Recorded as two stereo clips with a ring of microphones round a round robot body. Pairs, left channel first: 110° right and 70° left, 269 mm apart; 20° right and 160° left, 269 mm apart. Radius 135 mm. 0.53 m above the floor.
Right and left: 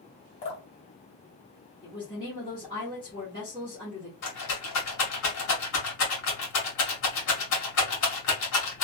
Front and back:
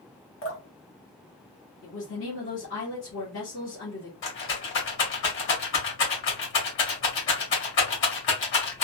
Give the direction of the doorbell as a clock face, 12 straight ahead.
I don't hear a doorbell.